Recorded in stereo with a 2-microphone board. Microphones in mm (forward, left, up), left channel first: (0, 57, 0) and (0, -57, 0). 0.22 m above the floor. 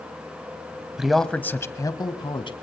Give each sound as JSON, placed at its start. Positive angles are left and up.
{"t": 1.0, "sound": "a man speaking", "side_deg": -5, "distance_m": 1.0}